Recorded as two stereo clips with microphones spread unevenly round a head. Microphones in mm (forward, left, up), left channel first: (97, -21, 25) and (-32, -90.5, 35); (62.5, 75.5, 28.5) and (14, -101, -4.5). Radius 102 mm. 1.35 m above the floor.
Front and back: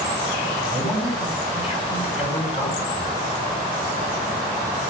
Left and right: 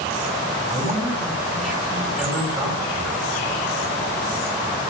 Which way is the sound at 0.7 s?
20° right.